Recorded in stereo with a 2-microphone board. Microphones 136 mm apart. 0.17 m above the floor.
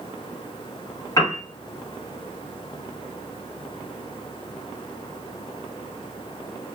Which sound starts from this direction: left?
A piano, at 1.2 s.